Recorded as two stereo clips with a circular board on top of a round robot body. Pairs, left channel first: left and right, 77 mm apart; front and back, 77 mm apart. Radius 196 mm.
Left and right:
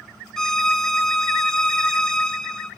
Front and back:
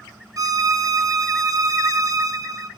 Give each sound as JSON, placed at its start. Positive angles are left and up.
{"t": 0.4, "sound": "a violin", "azimuth_deg": 170, "distance_m": 1.1}